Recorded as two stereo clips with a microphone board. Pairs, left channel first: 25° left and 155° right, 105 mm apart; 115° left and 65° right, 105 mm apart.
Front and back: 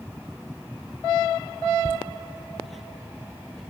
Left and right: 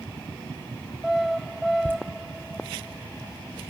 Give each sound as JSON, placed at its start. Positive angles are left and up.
{"t": 1.9, "sound": "laughter", "azimuth_deg": 45, "distance_m": 1.9}